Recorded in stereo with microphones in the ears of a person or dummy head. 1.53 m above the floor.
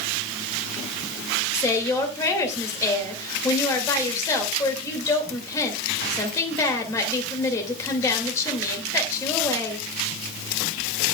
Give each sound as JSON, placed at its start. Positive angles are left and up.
{"t": 1.5, "sound": "a woman speaking", "side_deg": 15, "distance_m": 2.5}